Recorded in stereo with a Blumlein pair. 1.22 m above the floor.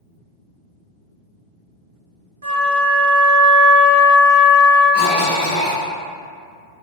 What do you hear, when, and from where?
2.4 s a flute: 70° right, 0.7 m
4.9 s a cough: 50° left, 0.8 m